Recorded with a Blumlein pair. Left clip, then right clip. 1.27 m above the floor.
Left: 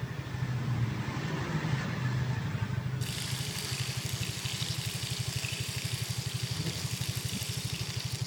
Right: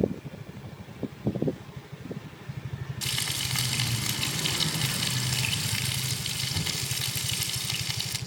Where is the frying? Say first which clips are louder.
Right 10 dB; 65° right, 7 m.